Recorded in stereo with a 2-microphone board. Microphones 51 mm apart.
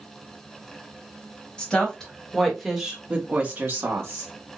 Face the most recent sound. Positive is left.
turn(degrees=-55)  # may be behind; listen again after turning